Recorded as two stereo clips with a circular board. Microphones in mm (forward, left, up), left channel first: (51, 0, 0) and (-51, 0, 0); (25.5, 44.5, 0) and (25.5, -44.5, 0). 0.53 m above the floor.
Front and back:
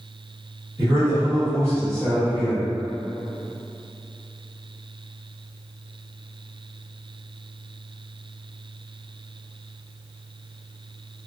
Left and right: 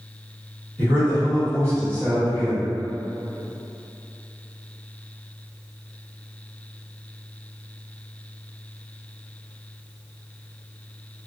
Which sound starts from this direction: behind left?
A man speaking, at 0.8 s.